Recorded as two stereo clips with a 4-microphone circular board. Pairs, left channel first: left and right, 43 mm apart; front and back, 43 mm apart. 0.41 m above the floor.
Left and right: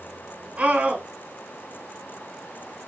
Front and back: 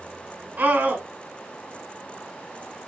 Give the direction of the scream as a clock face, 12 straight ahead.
5 o'clock.